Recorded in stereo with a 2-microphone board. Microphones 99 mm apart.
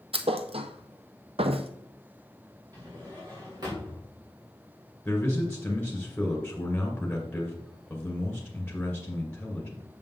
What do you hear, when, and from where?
0.1 s a thud: 75° right (ahead or behind), 0.7 m
2.7 s a drawer: 40° right (ahead or behind), 4 m
5.0 s a man speaking: 15° left (ahead or behind), 2 m